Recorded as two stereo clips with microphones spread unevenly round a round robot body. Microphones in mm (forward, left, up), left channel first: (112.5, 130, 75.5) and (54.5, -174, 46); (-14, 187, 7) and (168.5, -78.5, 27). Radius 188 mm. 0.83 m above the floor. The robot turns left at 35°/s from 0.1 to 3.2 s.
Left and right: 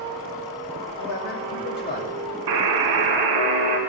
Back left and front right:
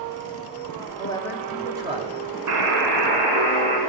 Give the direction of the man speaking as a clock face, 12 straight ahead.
10 o'clock.